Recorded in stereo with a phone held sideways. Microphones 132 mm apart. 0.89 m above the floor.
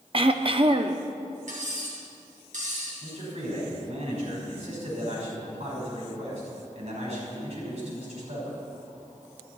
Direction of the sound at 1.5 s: 70° right (ahead or behind).